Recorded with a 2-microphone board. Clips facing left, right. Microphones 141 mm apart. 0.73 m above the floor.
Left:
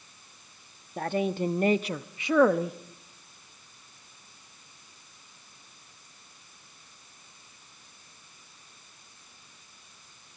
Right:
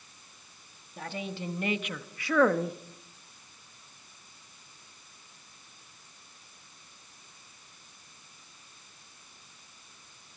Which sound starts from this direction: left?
A woman speaking, at 1.0 s.